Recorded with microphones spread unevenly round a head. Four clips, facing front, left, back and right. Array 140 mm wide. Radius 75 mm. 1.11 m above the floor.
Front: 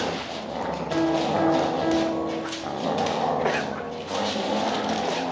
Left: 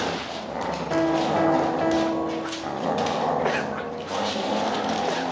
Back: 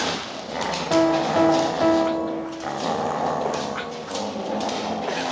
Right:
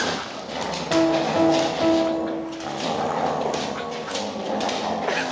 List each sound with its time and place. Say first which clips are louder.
0.9 s a piano: right 3 dB, back 4 dB; 165° left, 2.5 m